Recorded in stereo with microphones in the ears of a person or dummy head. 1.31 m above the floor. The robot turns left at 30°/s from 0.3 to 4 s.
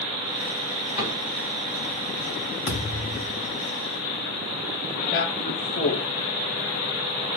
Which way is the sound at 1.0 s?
50° left (ahead or behind).